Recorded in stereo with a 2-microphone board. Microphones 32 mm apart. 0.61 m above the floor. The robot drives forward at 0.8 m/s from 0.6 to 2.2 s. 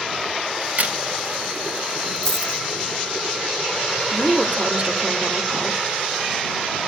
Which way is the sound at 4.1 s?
30° right (ahead or behind).